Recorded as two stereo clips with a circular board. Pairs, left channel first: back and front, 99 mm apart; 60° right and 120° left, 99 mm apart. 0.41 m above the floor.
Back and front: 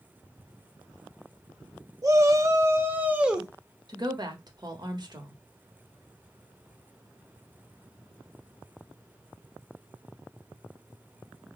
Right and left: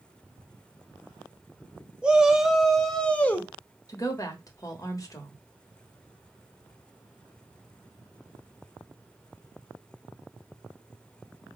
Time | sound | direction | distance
2.0 | a shout | 45° left | 1.1 m
3.9 | a woman speaking | 20° right | 1.1 m